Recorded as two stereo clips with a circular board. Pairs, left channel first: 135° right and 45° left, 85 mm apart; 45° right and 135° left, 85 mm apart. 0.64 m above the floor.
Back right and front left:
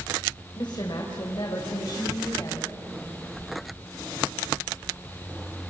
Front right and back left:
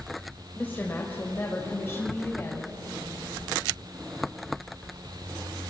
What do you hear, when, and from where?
0.6 s a woman speaking: 115° right, 3 m; by 2.7 s 100° right, 4.5 m